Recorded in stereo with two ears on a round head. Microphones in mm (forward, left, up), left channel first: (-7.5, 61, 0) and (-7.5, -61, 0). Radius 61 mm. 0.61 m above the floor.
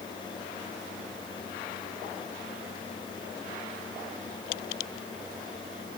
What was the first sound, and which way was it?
Only background noise.